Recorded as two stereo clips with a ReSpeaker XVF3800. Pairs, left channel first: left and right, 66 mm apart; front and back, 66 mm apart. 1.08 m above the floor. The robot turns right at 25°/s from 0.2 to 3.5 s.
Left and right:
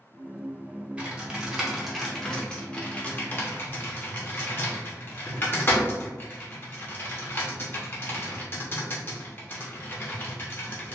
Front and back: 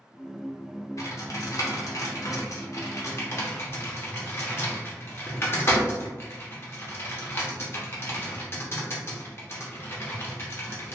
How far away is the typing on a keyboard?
About 0.7 m.